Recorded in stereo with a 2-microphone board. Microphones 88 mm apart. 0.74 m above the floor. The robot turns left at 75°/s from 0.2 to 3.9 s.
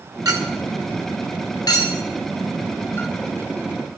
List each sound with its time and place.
0.2 s a clink: 50° right (ahead or behind), 0.9 m; by 3.1 s 15° left (ahead or behind), 0.9 m